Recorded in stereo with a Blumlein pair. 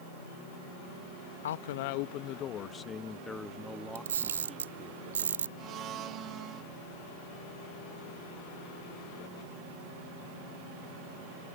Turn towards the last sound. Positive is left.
turn(degrees=-30)